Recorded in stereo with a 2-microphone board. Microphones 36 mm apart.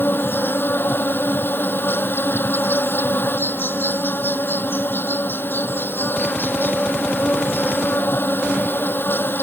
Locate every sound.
0.0 s an insect: 75° left (ahead or behind)